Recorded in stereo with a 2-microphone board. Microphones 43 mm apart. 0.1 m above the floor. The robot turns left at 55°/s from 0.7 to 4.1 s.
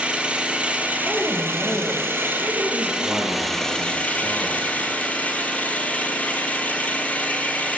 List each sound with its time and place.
0.0 s an engine running: 30° right, 1.1 m; by 7.8 s 140° left, 1.1 m
1.1 s a woman speaking: 25° left, 2.5 m; by 2.9 s 80° right, 2.5 m
3.0 s a man speaking: 60° left, 2.5 m; by 4.7 s straight ahead, 2.5 m